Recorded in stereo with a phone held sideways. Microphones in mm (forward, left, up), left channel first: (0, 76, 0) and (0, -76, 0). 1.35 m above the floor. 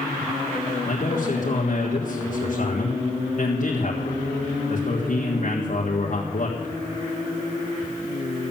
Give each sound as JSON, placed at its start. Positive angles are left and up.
{"t": 0.8, "sound": "a man speaking", "side_deg": 55, "distance_m": 1.6}